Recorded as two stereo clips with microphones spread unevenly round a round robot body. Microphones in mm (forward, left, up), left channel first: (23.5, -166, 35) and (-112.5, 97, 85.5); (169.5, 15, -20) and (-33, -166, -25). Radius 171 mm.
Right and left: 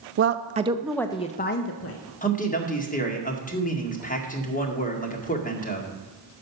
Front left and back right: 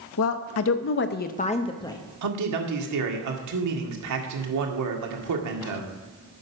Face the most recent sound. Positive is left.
turn(degrees=-125)